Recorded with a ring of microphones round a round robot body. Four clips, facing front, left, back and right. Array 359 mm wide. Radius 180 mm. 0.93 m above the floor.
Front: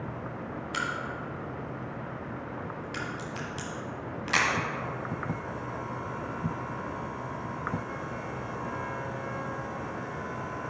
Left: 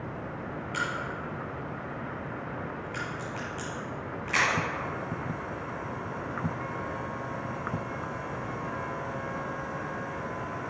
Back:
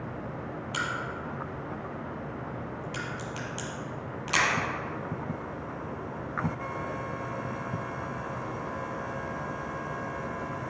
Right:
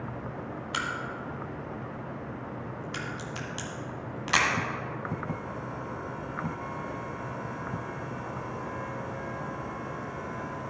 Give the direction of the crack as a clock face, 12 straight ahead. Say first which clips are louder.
Left 1 dB, even; 3 o'clock.